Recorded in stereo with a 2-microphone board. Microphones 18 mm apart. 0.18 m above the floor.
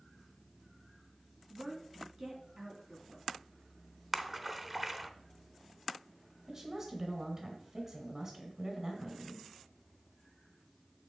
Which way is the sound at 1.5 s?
45° right (ahead or behind).